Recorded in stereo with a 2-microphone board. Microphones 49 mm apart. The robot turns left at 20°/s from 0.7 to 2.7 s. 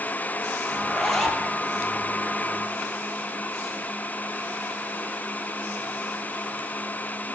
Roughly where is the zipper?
Centre.